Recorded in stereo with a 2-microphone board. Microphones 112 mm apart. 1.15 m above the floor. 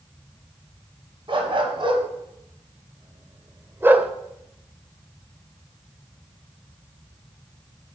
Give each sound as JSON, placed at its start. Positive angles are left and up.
{"t": 1.3, "sound": "a dog barking", "side_deg": -50, "distance_m": 2.0}